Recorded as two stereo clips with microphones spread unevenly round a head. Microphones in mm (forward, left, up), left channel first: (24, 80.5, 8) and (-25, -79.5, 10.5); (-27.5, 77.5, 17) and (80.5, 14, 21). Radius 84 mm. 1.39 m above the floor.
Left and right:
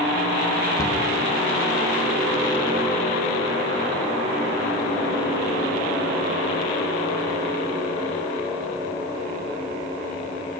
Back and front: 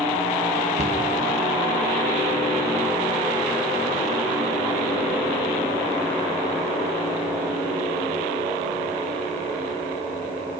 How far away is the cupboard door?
About 2.5 m.